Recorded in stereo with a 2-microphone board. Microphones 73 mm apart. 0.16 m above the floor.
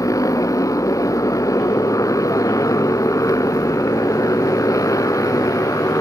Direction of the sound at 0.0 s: 50° left (ahead or behind).